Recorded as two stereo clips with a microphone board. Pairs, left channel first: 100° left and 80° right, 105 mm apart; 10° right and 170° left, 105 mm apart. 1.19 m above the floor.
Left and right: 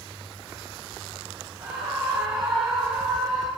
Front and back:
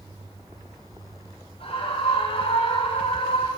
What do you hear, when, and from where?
1.6 s a scream: straight ahead, 6.5 m; by 3.5 s 10° left, 8 m